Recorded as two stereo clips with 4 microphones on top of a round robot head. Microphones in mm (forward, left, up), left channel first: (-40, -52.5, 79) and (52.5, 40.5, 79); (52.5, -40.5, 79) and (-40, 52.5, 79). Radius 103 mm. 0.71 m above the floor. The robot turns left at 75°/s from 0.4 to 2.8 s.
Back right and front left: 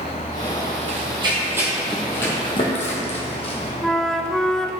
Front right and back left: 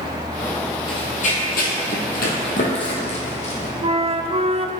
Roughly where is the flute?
Behind left.